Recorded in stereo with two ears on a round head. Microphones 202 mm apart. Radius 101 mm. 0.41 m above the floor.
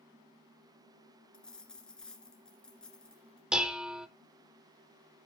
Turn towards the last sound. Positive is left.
turn(degrees=-5)  # may be behind; listen again after turning